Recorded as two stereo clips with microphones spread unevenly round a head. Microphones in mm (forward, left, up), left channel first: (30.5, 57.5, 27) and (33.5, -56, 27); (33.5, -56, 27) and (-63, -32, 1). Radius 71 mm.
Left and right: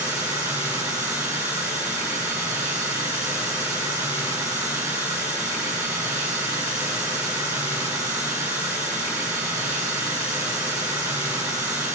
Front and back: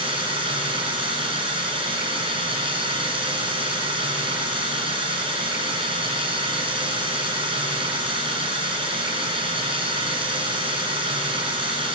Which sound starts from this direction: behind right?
Running water, at 0.0 s.